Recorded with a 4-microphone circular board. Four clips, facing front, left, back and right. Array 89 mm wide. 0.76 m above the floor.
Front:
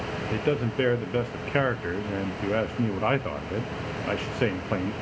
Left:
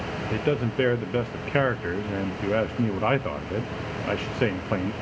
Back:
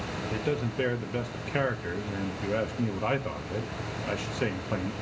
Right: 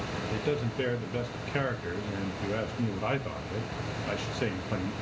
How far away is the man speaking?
About 0.5 m.